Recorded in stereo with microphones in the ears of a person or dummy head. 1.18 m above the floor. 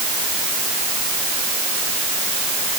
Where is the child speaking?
I don't hear a child speaking.